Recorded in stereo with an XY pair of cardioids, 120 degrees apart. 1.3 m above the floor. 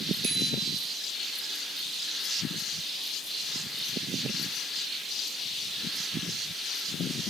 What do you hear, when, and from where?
0.2 s a bicycle bell: 65° right, 9.5 m